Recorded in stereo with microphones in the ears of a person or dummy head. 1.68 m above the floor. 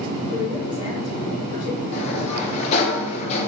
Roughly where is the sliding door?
Left.